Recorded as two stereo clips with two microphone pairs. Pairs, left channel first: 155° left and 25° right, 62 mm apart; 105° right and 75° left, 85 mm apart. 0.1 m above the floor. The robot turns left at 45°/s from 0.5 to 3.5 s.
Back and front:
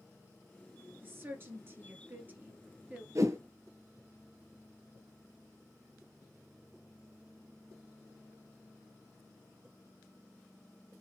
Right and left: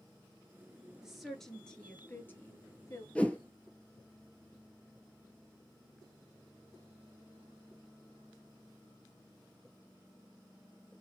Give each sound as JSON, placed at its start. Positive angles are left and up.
{"t": 1.0, "sound": "a woman speaking", "azimuth_deg": -5, "distance_m": 1.2}
{"t": 3.1, "sound": "a whoosh", "azimuth_deg": -30, "distance_m": 0.7}